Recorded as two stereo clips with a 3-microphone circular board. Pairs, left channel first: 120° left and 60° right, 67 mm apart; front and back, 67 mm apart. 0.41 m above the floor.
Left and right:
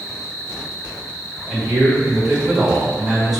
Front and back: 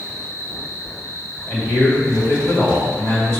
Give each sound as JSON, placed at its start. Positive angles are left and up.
{"t": 0.0, "sound": "an insect", "azimuth_deg": 35, "distance_m": 0.8}
{"t": 1.5, "sound": "a man speaking", "azimuth_deg": 20, "distance_m": 1.7}